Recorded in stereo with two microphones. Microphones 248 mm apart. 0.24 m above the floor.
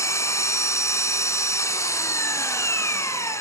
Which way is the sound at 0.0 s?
10° left (ahead or behind).